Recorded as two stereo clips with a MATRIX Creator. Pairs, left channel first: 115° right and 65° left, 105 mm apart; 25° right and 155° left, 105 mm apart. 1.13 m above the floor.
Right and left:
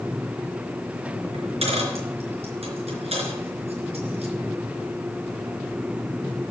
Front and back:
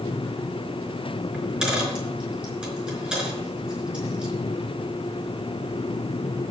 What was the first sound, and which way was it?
A dropped coin, 80° left.